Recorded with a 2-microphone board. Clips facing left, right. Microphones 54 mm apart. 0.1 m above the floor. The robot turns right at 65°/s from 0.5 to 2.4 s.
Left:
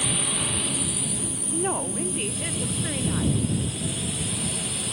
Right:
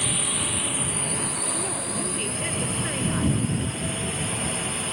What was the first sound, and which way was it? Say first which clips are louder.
A drone: even; centre (ahead or behind).